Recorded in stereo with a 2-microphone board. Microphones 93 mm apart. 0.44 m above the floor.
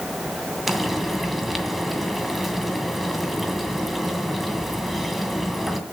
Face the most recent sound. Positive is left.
turn(degrees=0)  # may be behind; listen again after turning